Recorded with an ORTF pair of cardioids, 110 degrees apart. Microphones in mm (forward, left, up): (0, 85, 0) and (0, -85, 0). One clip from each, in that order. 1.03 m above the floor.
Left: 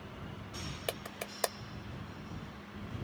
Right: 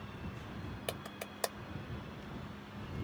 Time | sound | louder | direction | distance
0.9 | a clap | left 2 dB | 20° left | ?